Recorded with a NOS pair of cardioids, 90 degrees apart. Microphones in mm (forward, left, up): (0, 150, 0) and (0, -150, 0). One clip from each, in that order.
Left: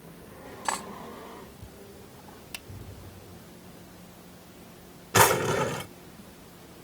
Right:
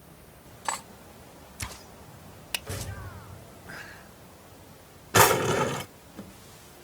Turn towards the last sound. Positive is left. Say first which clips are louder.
# right 1 dB
turn(degrees=-15)